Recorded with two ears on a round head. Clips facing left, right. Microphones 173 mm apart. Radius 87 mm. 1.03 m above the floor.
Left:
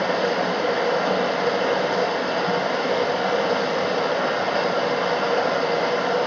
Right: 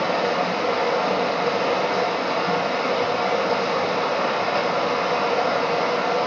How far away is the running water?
About 1.4 m.